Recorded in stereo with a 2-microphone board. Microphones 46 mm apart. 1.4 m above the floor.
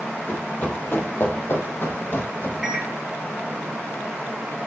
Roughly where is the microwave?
Centre.